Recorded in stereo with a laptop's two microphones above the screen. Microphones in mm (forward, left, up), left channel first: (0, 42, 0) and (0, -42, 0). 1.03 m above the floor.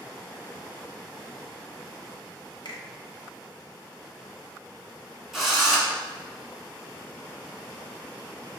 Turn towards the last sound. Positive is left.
turn(degrees=0)  # may be behind; listen again after turning